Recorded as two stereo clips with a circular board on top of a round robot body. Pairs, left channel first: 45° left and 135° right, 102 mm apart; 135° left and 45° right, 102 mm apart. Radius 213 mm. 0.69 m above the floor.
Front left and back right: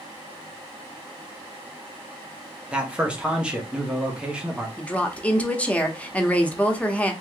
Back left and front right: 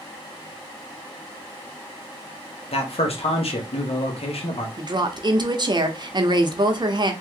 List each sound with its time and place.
2.7 s a man speaking: 145° left, 1.4 m
4.8 s a woman speaking: 25° right, 1.1 m